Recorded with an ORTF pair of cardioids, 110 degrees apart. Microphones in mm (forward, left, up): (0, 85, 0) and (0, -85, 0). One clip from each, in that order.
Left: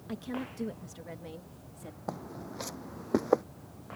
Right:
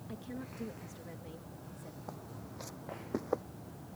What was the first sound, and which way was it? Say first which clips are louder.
A woman speaking: left 8 dB; 50° left.